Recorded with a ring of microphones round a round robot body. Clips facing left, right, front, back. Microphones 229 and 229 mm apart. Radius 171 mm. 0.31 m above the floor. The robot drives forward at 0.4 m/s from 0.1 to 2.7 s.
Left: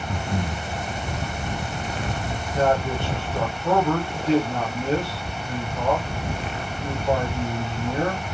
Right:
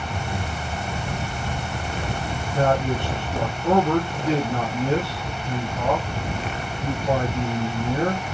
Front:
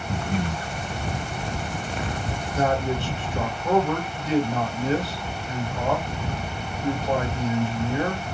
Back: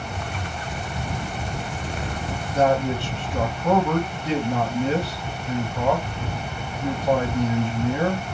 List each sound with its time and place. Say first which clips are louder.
0.1 s breathing: left 6 dB, front 6 dB; 40° left, 2.0 m; by 0.7 s 45° left, 1.8 m
2.5 s a man speaking: even, back 4 dB; 155° right, 2.5 m; by 8.2 s 160° right, 2.5 m